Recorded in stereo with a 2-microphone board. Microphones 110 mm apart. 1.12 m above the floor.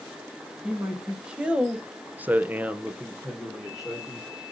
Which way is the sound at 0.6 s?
5° right (ahead or behind).